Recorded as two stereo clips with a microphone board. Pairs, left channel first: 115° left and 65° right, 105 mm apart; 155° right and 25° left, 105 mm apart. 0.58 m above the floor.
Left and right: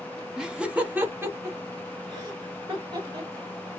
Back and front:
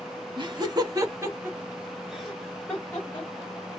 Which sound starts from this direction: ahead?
Laughter, at 0.4 s.